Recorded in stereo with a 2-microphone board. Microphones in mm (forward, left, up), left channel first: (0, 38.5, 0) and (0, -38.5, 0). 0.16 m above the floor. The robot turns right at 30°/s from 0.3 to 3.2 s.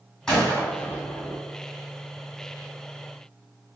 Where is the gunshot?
10° left (ahead or behind), 1.5 m; by 1.4 s 40° left (ahead or behind), 1.5 m.